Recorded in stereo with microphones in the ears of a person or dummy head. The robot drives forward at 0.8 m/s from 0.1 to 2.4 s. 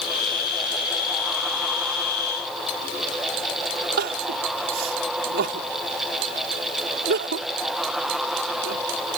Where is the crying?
55° right (ahead or behind).